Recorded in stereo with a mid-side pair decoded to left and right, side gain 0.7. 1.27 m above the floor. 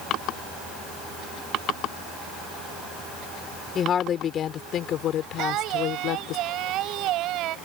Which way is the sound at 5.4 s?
55° right.